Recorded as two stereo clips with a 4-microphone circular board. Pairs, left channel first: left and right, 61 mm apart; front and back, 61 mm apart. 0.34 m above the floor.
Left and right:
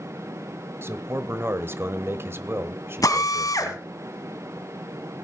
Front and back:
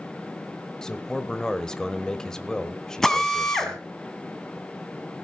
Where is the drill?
85° left, 1.8 m.